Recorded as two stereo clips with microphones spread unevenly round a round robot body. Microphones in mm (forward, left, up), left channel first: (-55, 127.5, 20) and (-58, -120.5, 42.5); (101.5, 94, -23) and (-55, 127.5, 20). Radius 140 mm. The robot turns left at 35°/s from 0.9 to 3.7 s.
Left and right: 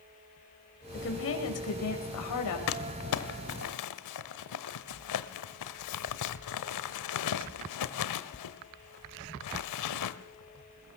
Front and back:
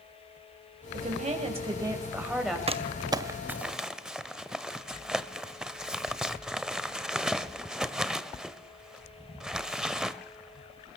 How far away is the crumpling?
About 1.2 m.